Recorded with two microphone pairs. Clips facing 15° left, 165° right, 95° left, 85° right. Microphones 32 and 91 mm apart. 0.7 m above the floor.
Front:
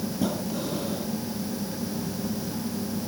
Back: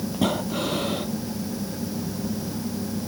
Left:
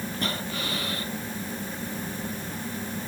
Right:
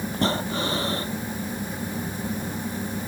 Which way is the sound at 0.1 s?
140° right.